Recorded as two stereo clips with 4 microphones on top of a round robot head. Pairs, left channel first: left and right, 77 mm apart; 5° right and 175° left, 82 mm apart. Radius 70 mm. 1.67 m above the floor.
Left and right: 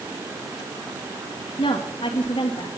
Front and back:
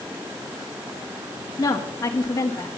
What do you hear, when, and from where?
1.6 s a woman speaking: 45° left, 2 m